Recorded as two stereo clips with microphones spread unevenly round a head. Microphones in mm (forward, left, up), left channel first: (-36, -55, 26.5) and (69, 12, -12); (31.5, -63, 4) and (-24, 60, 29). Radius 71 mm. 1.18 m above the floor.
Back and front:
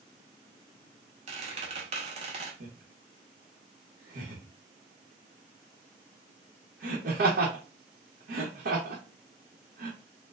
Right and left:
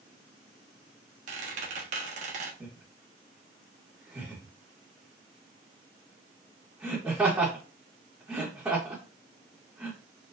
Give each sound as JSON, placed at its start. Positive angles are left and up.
{"t": 1.3, "sound": "a squeak", "azimuth_deg": 90, "distance_m": 0.8}
{"t": 2.6, "sound": "laughter", "azimuth_deg": 40, "distance_m": 1.0}